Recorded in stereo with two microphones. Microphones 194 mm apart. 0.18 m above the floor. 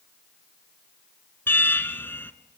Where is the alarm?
10° left (ahead or behind), 1.4 m.